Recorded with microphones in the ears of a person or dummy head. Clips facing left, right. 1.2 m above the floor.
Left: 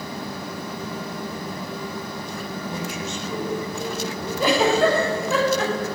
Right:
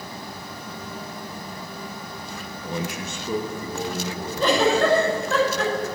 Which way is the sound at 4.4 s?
10° left (ahead or behind).